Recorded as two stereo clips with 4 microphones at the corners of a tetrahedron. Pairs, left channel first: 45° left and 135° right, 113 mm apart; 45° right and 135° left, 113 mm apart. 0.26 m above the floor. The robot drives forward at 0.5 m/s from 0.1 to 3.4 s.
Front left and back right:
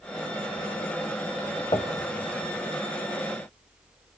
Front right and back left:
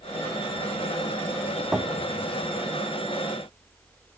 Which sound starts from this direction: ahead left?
Knocking, at 1.7 s.